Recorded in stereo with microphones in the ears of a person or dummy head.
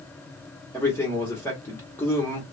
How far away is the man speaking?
About 1.1 m.